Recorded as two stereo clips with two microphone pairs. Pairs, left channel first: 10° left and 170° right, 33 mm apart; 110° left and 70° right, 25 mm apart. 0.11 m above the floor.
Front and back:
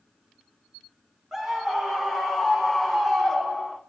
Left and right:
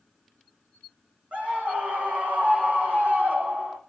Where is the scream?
90° right, 7.5 m; by 3.8 s 70° right, 5.5 m.